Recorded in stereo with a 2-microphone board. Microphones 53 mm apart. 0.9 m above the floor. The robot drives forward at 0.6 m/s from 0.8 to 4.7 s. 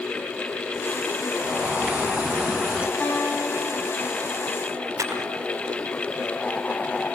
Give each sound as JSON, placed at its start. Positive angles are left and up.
{"t": 1.4, "sound": "a bird", "side_deg": -30, "distance_m": 1.1}
{"t": 3.0, "sound": "a guitar", "side_deg": 30, "distance_m": 9.0}
{"t": 5.0, "sound": "a camera shutter", "side_deg": -60, "distance_m": 6.0}